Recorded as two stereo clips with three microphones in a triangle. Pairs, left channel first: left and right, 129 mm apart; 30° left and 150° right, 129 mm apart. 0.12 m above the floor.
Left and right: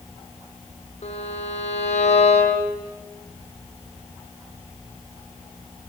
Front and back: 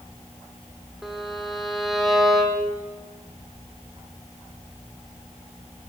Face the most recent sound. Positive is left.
turn(degrees=120)